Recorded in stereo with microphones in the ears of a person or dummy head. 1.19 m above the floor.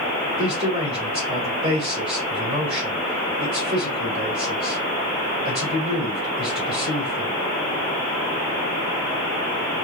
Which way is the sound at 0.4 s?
30° right (ahead or behind).